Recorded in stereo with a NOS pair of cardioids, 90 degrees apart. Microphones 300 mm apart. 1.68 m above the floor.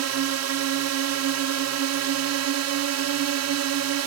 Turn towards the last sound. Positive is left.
turn(degrees=-60)